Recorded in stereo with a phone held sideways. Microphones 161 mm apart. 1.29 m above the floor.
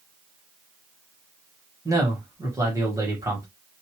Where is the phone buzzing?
No phone buzzing in this recording.